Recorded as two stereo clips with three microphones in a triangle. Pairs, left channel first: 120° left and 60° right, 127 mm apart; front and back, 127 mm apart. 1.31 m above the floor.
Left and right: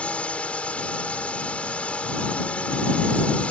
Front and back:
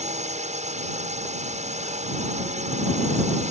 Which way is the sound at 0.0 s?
160° right.